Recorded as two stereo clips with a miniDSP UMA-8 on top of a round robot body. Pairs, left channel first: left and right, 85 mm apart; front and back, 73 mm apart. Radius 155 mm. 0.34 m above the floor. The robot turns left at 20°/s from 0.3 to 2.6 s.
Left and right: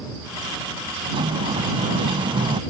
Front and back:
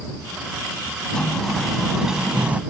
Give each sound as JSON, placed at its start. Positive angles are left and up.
{"t": 1.1, "sound": "a sliding door", "azimuth_deg": -80}